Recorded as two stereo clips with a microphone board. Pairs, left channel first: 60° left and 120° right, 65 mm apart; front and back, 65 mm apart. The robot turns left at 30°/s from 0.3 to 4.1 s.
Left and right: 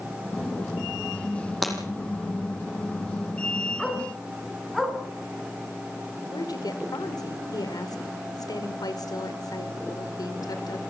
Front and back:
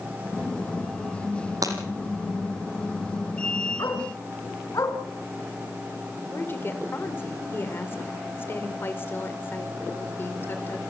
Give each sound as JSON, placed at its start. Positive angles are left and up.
{"t": 1.6, "sound": "breaking glass", "azimuth_deg": 150, "distance_m": 6.5}
{"t": 3.8, "sound": "a dog barking", "azimuth_deg": -25, "distance_m": 4.5}
{"t": 6.3, "sound": "a woman speaking", "azimuth_deg": 55, "distance_m": 4.0}